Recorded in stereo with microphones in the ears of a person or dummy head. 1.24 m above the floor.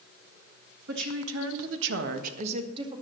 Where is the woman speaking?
60° right (ahead or behind), 1.8 m; by 3.0 s 30° right (ahead or behind), 2.5 m.